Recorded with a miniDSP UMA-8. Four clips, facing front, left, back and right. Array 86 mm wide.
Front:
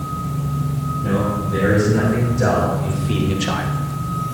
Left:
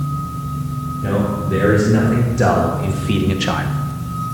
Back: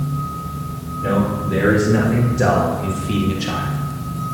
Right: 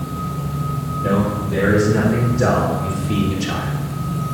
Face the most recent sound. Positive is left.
turn(degrees=60)